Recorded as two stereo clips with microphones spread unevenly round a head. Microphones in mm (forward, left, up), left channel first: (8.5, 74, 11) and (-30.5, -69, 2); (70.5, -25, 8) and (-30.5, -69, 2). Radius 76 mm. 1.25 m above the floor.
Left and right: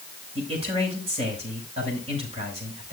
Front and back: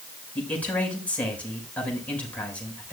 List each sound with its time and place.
0.3 s a man speaking: 55° right, 6 m